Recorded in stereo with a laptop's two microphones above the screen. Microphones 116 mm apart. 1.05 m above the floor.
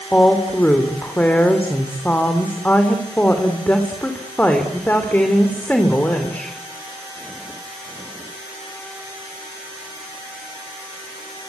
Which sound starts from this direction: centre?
A woman speaking, at 0.1 s.